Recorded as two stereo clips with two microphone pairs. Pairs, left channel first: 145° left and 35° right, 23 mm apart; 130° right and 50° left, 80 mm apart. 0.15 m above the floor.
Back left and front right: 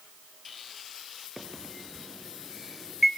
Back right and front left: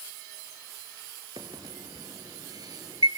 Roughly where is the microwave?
Ahead left.